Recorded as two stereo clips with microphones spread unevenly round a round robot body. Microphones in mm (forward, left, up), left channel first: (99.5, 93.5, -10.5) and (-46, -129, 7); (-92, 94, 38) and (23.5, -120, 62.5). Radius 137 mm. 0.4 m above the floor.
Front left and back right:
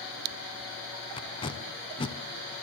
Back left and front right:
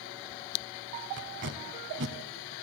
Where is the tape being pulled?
15° right, 0.9 m.